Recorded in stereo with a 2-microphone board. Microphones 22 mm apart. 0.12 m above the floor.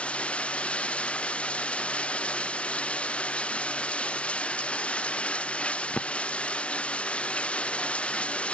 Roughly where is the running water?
Left.